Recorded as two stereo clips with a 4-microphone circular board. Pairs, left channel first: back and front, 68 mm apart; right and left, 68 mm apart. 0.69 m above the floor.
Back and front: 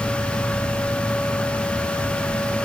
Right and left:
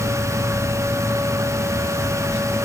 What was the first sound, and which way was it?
Only background noise.